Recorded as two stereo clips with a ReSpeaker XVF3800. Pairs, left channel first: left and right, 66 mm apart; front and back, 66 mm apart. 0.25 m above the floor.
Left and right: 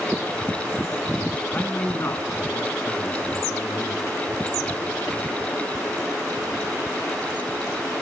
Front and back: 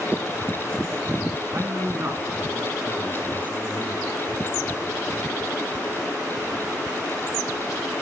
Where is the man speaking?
145° left, 2.5 m; by 5.0 s 125° left, 5.5 m.